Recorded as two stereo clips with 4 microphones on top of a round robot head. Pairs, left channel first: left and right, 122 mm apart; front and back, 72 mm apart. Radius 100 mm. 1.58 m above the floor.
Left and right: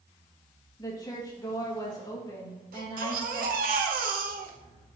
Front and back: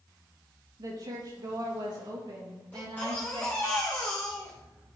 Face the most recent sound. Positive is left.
turn(degrees=-80)